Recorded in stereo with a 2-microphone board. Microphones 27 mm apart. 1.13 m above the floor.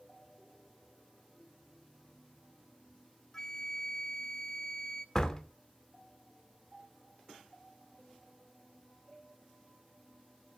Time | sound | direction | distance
3.3 | a flute | 25° left (ahead or behind) | 0.5 m
5.2 | a door slam | 25° left (ahead or behind) | 2 m